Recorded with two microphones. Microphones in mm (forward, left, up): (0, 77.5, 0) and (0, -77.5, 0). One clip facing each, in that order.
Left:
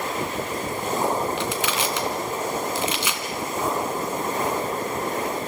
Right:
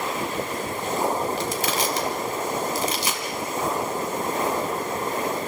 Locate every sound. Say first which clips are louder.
1.4 s crushing: even; 40° right (ahead or behind), 2.0 m